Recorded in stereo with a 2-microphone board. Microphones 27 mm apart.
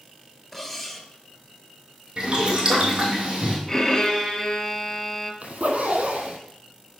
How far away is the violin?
About 1.4 m.